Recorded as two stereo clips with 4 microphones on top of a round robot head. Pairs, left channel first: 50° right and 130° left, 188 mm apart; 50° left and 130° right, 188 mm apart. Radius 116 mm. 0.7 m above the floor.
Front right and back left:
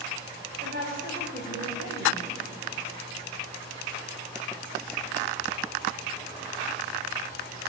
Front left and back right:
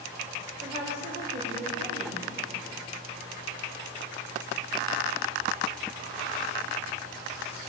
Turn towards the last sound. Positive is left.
turn(degrees=175)